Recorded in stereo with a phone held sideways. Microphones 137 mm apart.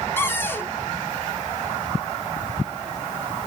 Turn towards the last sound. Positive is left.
turn(degrees=15)  # may be behind; listen again after turning